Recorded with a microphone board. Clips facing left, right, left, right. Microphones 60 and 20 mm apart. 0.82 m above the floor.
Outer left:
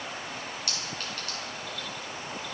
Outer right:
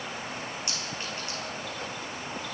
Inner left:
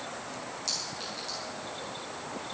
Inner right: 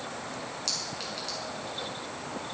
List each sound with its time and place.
0.7 s a clink: 25° right (ahead or behind), 7 m